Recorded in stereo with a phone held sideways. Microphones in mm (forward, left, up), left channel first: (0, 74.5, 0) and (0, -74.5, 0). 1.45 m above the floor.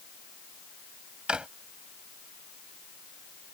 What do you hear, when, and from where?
1.3 s a drawer: 5° right (ahead or behind)